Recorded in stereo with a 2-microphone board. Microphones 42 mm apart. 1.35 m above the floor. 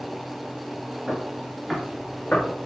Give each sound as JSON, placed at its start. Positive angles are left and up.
{"t": 1.1, "sound": "footsteps", "side_deg": -20, "distance_m": 1.3}